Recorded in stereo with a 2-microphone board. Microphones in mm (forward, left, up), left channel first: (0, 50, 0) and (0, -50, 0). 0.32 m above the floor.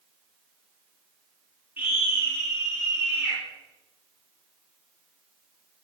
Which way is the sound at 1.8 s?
20° right (ahead or behind).